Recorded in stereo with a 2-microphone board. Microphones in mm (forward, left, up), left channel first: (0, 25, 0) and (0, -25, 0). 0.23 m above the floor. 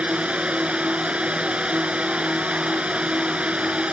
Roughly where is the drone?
Right.